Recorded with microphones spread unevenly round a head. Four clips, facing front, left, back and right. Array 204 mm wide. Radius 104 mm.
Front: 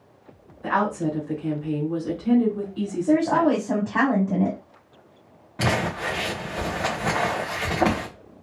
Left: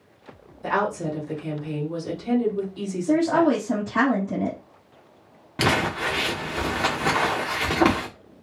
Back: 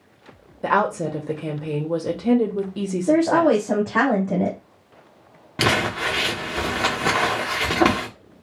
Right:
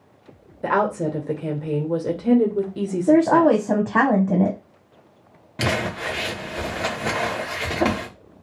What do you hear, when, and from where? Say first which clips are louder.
0.6 s a woman speaking: right 4 dB, back 3 dB; 135° right, 1.1 m
3.1 s a woman speaking: right 5 dB, back 3 dB; 100° right, 0.9 m
5.6 s crumpling: left 2 dB, back 3 dB; 145° left, 1.2 m